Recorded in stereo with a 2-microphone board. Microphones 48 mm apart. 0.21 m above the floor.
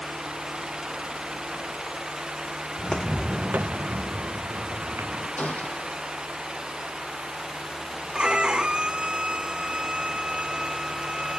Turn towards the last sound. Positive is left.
turn(degrees=-20)  # may be behind; listen again after turning